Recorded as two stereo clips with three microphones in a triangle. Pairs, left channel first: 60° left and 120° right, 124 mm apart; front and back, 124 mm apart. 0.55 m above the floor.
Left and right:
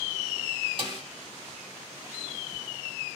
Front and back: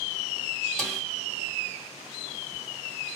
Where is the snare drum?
85° right, 1.6 m.